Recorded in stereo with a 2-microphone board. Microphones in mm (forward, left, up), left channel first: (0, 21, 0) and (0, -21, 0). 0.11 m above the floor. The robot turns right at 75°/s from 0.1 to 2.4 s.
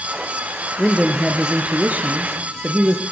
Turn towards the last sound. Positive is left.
turn(degrees=-75)